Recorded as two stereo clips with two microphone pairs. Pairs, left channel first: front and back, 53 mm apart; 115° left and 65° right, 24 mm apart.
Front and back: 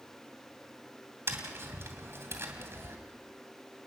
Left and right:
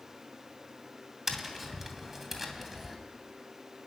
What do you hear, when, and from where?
1.3 s tapping: 145° right, 2.5 m